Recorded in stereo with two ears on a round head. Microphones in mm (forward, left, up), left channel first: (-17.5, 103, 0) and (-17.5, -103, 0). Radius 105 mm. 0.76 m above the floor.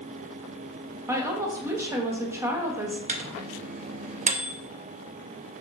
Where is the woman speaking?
10° right (ahead or behind), 0.7 m.